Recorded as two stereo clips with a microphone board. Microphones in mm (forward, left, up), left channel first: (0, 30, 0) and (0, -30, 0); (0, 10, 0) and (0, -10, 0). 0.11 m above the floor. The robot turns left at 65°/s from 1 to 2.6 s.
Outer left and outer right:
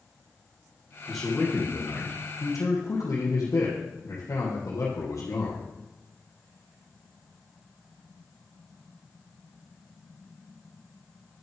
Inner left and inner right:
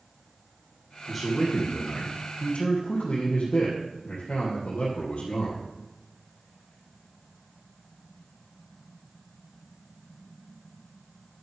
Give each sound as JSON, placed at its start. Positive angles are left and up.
{"t": 1.1, "sound": "a man speaking", "azimuth_deg": 180, "distance_m": 3.0}